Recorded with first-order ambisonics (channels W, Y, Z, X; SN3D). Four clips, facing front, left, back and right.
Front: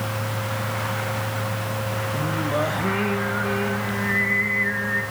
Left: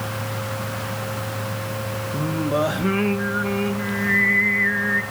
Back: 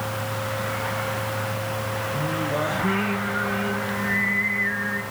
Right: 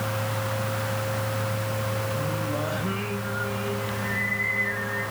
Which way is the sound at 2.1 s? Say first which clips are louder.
Left 6 dB, front 1 dB; 80° left.